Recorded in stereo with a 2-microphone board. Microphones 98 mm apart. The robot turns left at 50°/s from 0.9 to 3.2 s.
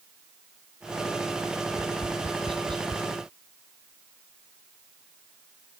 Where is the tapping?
70° right (ahead or behind); by 3.0 s 40° right (ahead or behind).